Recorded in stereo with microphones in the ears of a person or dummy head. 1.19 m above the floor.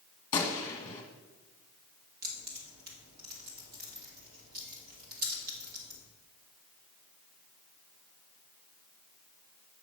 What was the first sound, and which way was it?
A gunshot, 20° left (ahead or behind).